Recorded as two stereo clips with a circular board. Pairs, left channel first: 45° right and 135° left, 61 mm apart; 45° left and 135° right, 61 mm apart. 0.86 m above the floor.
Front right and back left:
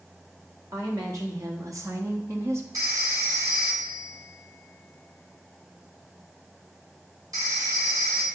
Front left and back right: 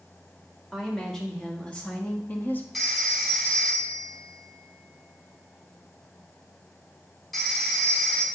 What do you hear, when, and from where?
0.7 s a woman speaking: 130° left, 1.8 m; by 2.6 s 100° left, 1.0 m
2.7 s a phone ringing: 135° left, 1.6 m